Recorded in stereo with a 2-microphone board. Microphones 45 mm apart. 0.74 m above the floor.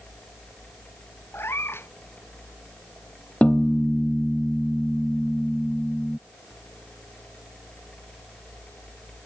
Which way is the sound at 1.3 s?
65° left (ahead or behind).